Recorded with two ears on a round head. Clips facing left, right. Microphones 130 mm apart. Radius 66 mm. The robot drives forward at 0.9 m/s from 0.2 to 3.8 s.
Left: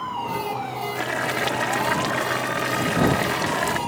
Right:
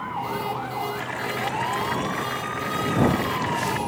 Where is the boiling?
60° left (ahead or behind).